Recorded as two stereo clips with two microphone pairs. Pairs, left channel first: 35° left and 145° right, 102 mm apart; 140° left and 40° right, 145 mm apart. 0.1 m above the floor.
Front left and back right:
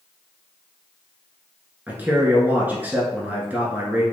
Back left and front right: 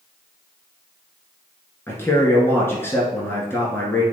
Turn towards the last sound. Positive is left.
turn(degrees=175)